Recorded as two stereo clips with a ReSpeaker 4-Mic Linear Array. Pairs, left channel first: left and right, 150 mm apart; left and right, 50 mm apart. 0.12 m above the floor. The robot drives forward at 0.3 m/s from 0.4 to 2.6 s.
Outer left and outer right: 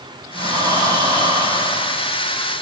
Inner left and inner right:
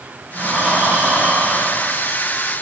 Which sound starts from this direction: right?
Breathing, at 0.3 s.